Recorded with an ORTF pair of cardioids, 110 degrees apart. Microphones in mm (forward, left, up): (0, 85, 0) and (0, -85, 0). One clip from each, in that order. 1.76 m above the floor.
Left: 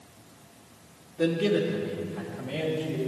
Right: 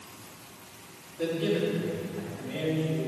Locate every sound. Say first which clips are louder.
1.2 s a man speaking: left 3 dB; 50° left, 2 m; by 3.1 s 55° left, 3.5 m